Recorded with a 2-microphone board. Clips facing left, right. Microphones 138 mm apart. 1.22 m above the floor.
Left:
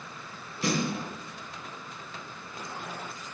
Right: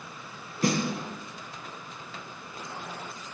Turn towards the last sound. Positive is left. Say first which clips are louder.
# right 2 dB
turn(degrees=-50)  # may be behind; listen again after turning